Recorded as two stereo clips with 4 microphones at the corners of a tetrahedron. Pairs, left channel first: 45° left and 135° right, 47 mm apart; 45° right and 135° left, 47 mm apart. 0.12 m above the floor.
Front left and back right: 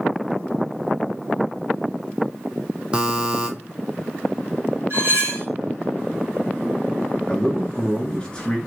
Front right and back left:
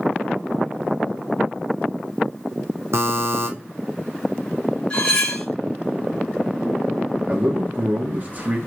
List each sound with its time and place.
2.9 s a buzzer: 155° left, 1.0 m
4.9 s cutlery clinking: 110° right, 3 m
7.3 s a man speaking: 110° left, 1.5 m